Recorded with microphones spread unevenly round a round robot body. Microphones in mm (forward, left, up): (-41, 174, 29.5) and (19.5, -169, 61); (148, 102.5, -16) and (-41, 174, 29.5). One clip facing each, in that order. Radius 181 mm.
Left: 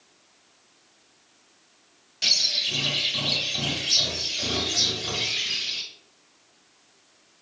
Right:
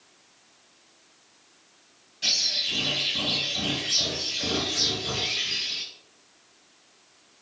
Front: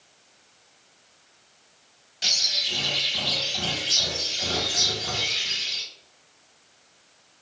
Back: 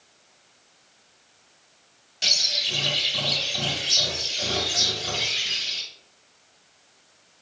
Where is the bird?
115° left, 0.9 m.